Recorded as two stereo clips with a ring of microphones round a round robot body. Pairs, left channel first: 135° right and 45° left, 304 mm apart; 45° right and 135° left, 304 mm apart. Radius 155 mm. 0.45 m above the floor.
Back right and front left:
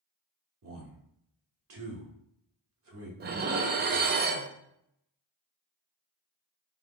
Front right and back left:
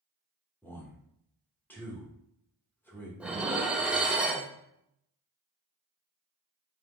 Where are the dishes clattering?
50° left, 0.5 m.